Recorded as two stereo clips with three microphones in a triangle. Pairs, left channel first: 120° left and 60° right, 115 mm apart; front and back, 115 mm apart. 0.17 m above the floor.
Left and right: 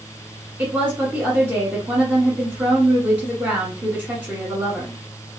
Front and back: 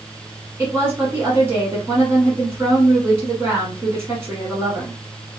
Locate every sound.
0.6 s a woman speaking: 125° right, 1.3 m